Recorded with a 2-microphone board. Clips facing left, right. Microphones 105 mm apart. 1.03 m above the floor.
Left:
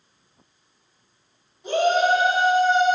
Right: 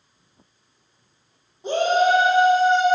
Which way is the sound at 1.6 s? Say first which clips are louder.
Right 1 dB; 30° right (ahead or behind).